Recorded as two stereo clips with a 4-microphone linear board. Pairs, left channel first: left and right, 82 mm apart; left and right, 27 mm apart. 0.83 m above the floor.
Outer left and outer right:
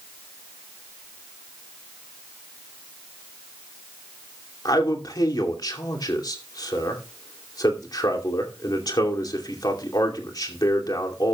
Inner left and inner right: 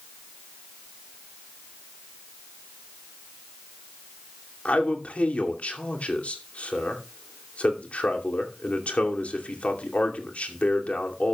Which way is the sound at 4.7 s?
55° left (ahead or behind).